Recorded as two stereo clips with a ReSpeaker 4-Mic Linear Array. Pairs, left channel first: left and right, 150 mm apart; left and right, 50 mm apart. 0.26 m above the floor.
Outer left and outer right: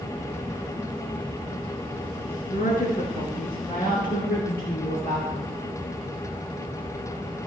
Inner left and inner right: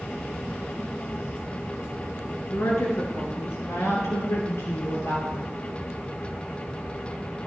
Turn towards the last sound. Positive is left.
turn(degrees=80)